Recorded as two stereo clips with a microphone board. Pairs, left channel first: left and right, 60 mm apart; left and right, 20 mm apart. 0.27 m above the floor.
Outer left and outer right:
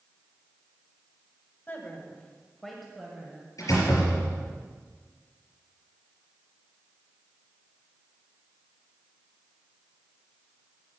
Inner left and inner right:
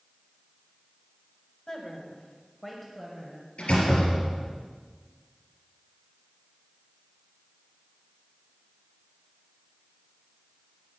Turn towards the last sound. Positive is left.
turn(degrees=70)  # may be behind; listen again after turning